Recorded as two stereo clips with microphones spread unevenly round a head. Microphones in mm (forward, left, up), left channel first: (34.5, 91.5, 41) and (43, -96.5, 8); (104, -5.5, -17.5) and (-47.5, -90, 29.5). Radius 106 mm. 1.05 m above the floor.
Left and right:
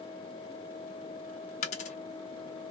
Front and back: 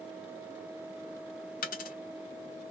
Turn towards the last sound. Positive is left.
turn(degrees=80)